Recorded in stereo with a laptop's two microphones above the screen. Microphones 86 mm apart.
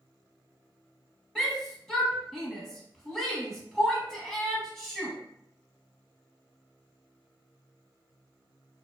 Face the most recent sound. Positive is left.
turn(degrees=-5)  # may be behind; listen again after turning